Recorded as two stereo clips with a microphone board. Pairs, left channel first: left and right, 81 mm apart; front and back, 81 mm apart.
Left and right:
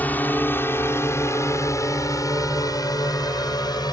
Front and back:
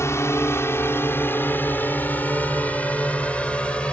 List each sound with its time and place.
0.0 s a drone: 30° left; by 3.9 s 75° left